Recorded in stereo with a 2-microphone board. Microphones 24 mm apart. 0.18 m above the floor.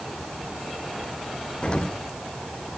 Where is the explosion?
45° left (ahead or behind), 2.5 m.